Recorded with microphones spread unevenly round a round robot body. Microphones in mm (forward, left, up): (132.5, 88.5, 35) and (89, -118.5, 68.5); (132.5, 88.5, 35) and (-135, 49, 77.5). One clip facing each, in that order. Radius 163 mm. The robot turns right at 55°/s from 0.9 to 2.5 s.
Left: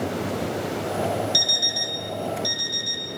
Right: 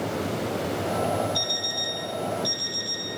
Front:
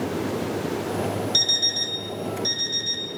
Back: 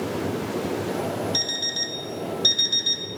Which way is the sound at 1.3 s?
90° left.